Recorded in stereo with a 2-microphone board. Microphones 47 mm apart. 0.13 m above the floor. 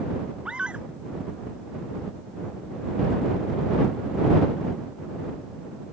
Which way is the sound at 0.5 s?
20° right (ahead or behind).